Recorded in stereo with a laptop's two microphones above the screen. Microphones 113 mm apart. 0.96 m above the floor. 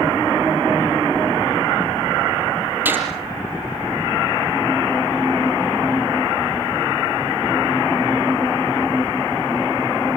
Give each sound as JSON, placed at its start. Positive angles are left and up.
{"t": 2.9, "sound": "a gunshot", "side_deg": -20, "distance_m": 5.0}